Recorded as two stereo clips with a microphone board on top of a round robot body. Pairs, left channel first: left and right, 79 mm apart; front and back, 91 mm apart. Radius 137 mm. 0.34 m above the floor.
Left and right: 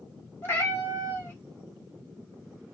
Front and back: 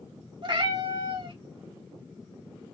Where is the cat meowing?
155° left, 2.0 m.